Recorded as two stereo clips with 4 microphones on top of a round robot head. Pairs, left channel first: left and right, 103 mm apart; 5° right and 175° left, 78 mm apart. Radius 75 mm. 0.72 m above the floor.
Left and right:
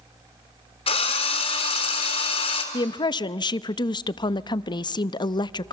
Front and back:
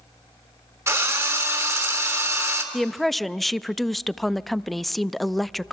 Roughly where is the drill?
Behind left.